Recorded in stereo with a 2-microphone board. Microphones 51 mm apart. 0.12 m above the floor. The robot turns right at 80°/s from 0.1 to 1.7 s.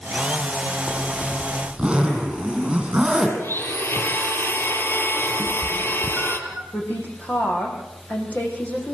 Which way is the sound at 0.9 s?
135° left.